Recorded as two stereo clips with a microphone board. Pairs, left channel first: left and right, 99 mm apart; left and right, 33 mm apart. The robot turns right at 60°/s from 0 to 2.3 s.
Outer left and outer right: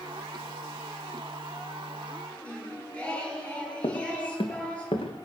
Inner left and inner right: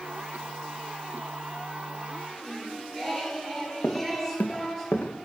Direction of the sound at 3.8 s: 60° left (ahead or behind).